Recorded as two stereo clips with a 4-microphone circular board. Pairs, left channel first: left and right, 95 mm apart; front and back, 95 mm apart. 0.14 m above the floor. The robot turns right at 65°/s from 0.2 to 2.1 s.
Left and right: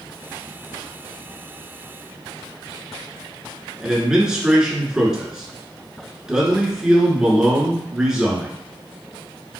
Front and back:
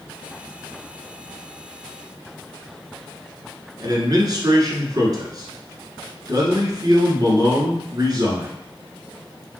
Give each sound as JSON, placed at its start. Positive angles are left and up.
{"t": 3.8, "sound": "a man speaking", "azimuth_deg": -170, "distance_m": 1.4}